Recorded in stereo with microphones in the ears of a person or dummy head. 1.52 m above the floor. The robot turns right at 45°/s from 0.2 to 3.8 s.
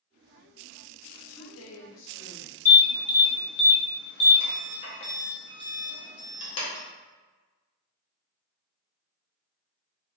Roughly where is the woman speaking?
Left.